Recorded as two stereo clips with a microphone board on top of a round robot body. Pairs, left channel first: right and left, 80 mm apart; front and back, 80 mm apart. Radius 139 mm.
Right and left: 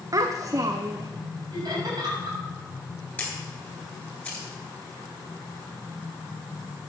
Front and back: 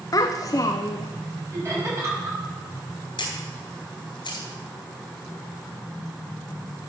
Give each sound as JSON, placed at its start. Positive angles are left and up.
{"t": 0.1, "sound": "a child speaking", "azimuth_deg": 45, "distance_m": 0.6}
{"t": 1.5, "sound": "laughter", "azimuth_deg": 125, "distance_m": 5.5}
{"t": 3.2, "sound": "a camera shutter", "azimuth_deg": -20, "distance_m": 3.0}